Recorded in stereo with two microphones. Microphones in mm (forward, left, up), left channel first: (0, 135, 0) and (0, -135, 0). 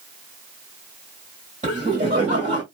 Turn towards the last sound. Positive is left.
turn(degrees=-25)  # may be behind; listen again after turning